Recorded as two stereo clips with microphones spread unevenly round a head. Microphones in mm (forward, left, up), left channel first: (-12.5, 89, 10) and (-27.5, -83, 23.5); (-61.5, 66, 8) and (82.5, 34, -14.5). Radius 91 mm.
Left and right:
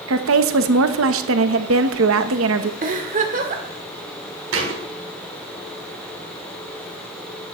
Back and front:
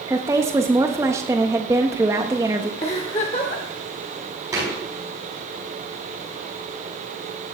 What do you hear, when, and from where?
0.1 s a woman speaking: 85° right, 1.1 m
2.8 s a giggle: 135° right, 1.8 m
4.5 s a thud: 90° right, 4.5 m